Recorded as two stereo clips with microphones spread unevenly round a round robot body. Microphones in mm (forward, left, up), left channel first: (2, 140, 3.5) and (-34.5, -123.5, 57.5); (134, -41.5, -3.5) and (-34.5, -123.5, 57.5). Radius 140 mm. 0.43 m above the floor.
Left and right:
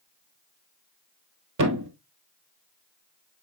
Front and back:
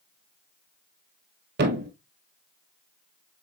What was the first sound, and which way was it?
A thud, 135° right.